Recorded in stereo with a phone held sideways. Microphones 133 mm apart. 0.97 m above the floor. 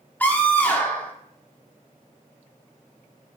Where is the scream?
10° left (ahead or behind), 2 m.